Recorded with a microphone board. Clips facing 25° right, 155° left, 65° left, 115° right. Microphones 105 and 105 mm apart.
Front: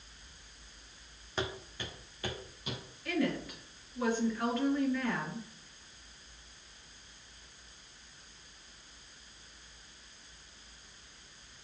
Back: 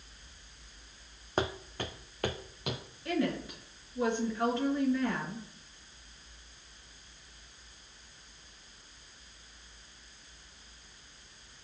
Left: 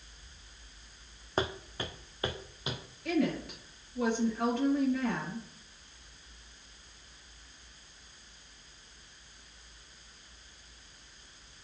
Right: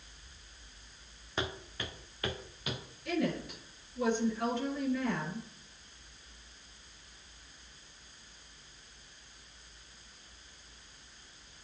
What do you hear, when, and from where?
1.4 s footsteps: 115° left, 0.8 m; by 2.8 s 135° left, 1.6 m
3.0 s a woman speaking: 95° left, 3 m